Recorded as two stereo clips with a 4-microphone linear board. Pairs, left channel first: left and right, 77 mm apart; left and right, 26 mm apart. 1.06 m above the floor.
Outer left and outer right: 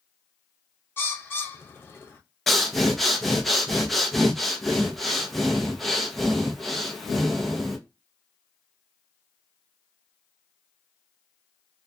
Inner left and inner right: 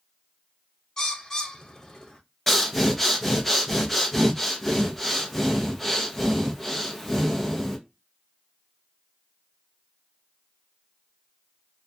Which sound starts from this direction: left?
A bird, at 1.0 s.